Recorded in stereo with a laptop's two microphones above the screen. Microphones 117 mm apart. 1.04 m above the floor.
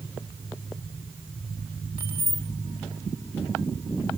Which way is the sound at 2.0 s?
50° right (ahead or behind).